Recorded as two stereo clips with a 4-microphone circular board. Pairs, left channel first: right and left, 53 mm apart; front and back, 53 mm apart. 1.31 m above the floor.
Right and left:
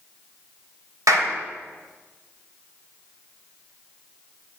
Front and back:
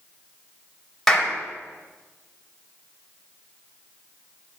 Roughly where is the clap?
Left.